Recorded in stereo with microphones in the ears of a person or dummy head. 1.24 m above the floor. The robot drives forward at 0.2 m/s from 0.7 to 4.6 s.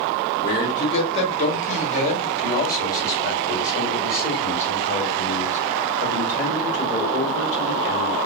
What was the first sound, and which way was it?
A man speaking, 30° left (ahead or behind).